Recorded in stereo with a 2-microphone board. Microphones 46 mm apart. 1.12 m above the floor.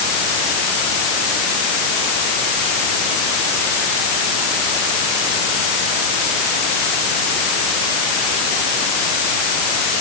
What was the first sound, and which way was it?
Only background noise.